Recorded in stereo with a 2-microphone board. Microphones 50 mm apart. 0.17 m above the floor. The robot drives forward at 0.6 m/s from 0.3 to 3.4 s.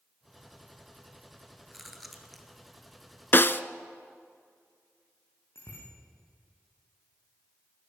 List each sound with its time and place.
1.7 s chewing: centre (ahead or behind), 2 m
3.3 s a snare drum: 45° left (ahead or behind), 0.6 m
5.5 s a bicycle bell: 60° left (ahead or behind), 8 m